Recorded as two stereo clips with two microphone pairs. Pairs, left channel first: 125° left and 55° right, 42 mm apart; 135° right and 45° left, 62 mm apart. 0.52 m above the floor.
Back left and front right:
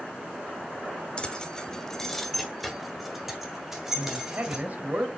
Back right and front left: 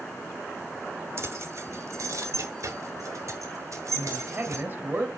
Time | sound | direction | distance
1.2 | keys jangling | 65° left | 1.1 m
4.0 | a man speaking | 10° right | 2 m